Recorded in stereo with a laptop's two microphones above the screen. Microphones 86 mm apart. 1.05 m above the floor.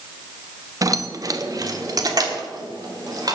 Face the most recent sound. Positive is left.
turn(degrees=-50)  # may be behind; listen again after turning